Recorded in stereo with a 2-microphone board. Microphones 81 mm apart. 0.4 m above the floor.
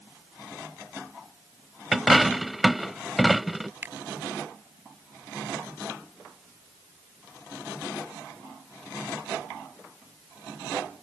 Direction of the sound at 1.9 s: Centre (ahead or behind).